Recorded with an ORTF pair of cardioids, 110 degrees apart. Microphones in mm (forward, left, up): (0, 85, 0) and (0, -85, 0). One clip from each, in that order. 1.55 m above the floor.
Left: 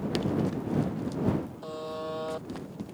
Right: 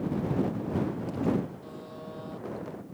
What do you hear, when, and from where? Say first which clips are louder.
1.6 s a buzzer: left 7 dB; 60° left